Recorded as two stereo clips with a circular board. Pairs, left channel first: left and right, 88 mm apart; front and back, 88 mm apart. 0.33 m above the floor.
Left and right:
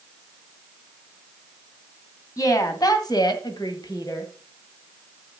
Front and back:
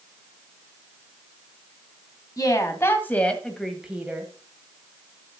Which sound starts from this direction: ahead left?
A woman speaking, at 2.4 s.